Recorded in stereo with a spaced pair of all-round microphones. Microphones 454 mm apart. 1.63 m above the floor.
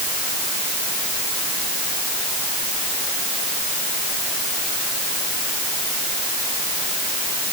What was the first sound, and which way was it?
Only background noise.